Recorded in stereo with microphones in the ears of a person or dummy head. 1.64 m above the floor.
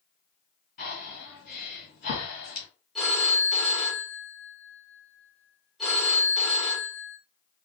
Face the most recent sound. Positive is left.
turn(degrees=0)  # may be behind; listen again after turning